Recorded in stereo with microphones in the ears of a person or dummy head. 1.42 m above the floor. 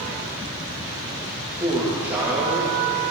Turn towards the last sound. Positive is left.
turn(degrees=-10)  # may be behind; listen again after turning